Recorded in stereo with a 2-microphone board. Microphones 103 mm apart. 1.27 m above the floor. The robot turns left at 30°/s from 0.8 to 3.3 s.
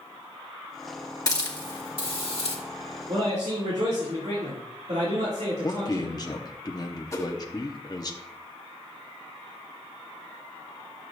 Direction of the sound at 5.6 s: 35° left (ahead or behind).